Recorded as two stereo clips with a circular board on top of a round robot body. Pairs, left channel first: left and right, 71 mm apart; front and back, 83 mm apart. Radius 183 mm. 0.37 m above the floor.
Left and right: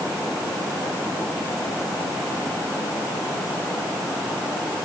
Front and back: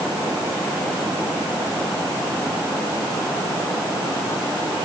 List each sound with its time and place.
Only background noise.